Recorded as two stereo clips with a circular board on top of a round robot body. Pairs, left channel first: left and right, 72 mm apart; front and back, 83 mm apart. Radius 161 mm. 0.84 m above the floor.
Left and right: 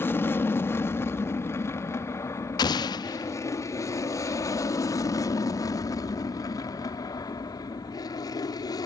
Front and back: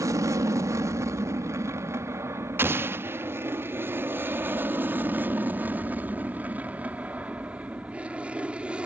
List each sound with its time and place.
0.0 s an aircraft: 140° left; by 8.9 s 105° left
2.6 s an explosion: 115° left